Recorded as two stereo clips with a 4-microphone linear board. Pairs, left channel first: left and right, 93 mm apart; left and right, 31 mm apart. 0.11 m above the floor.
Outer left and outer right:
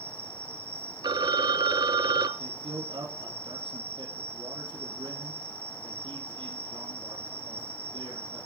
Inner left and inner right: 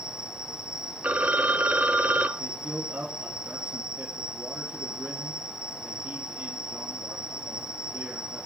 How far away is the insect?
About 9 m.